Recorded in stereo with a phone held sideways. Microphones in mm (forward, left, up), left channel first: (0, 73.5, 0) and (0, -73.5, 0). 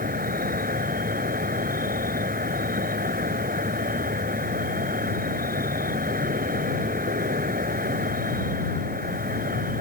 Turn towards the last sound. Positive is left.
turn(degrees=-80)